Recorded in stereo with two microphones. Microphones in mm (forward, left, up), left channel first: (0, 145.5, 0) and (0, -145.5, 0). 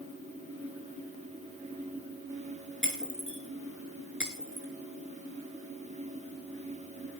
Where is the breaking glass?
40° right (ahead or behind), 3.5 m.